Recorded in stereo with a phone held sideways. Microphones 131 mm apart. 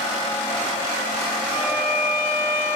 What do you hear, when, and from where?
1.5 s a violin: 15° right (ahead or behind), 1.3 m